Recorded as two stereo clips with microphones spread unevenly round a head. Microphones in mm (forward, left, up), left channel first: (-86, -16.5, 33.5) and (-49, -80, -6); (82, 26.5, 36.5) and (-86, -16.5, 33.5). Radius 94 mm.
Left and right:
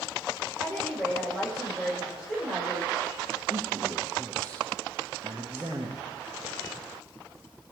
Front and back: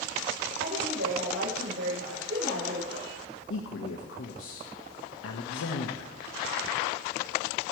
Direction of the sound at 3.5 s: 5° left.